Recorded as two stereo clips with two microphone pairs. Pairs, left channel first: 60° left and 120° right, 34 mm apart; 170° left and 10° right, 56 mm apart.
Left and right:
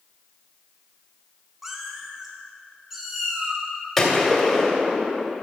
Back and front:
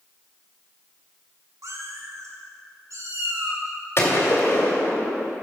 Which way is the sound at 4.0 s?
140° left.